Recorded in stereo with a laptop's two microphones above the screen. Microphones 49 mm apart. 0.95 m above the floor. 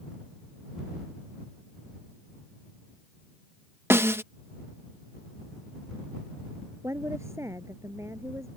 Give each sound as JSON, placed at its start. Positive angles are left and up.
{"t": 3.9, "sound": "a snare drum", "side_deg": -55}
{"t": 6.8, "sound": "a woman speaking", "side_deg": -70}